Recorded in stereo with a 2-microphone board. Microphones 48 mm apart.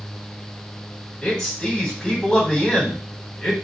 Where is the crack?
No crack in this recording.